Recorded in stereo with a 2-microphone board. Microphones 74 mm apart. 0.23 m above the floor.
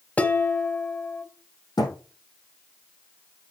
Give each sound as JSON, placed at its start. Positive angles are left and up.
{"t": 0.2, "sound": "dishes clattering", "side_deg": 20, "distance_m": 1.0}
{"t": 1.8, "sound": "a thud", "side_deg": 65, "distance_m": 3.5}